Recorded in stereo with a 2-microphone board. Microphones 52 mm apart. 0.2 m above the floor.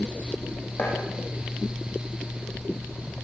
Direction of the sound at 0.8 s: 50° left (ahead or behind).